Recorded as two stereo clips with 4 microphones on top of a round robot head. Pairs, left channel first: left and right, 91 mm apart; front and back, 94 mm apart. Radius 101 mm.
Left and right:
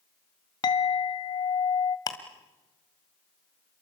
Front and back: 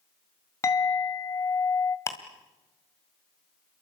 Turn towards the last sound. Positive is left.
turn(degrees=55)